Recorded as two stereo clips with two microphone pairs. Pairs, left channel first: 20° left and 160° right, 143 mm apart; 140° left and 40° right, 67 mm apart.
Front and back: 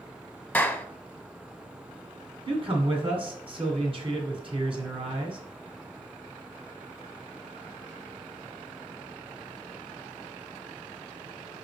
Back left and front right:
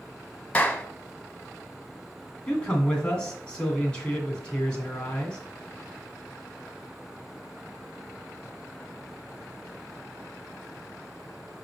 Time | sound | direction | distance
0.5 | a clap | 90° left | 1.0 m
2.5 | a man speaking | 155° right | 1.9 m